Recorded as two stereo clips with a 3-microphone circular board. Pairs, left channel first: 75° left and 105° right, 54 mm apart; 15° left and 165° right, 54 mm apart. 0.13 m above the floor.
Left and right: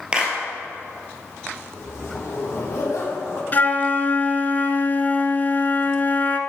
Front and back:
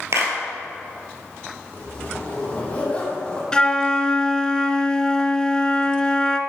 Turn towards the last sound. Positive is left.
turn(degrees=75)